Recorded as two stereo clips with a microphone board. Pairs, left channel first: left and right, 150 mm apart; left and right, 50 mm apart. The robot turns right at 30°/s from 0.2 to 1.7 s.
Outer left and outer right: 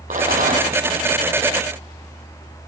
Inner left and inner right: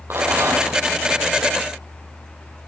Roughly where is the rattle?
Right.